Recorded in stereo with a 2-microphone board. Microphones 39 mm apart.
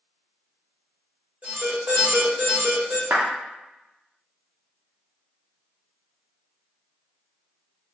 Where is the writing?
No writing in this recording.